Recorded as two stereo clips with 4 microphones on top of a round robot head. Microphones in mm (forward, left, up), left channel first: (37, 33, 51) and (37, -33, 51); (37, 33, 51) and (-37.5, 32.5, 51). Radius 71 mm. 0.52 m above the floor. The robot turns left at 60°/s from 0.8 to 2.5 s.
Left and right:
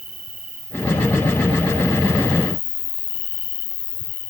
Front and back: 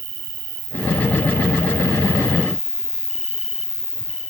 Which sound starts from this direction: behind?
An insect, at 0.0 s.